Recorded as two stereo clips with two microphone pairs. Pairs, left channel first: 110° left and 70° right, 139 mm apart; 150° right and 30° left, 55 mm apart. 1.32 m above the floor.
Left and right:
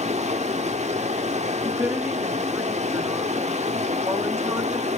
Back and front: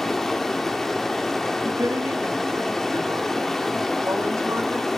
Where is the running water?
70° right, 1.2 m.